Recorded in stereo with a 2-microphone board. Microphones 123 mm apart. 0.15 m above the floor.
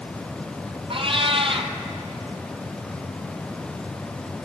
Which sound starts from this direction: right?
A cat meowing, at 0.9 s.